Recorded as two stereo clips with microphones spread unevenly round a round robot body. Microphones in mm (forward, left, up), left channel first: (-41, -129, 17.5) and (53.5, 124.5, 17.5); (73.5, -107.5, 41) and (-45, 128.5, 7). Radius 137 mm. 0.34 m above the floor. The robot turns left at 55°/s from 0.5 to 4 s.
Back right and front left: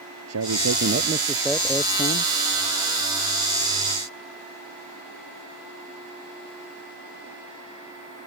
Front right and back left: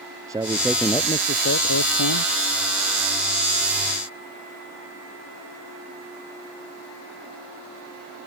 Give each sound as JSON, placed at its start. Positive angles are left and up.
{"t": 0.3, "sound": "a man speaking", "azimuth_deg": 40}